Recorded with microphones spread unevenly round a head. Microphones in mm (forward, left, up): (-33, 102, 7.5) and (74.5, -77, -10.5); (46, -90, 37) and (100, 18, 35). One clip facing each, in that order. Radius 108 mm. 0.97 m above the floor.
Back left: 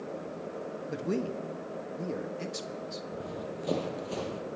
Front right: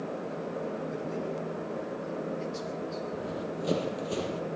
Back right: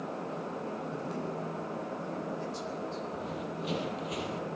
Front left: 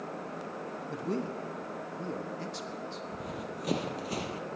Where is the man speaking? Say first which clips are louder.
Back left 2 dB, front left 2 dB; 100° left, 1.0 m.